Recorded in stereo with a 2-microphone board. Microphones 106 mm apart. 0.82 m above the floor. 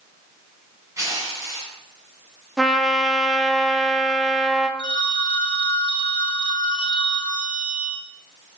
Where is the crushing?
30° right (ahead or behind), 4 m.